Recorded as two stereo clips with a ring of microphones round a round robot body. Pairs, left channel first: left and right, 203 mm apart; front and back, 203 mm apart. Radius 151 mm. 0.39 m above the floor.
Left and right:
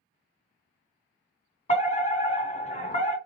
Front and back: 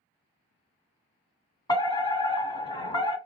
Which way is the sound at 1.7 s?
60° left.